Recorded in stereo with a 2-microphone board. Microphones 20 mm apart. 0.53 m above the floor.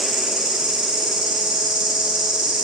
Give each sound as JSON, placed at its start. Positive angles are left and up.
{"t": 0.0, "sound": "an insect", "side_deg": -70, "distance_m": 3.0}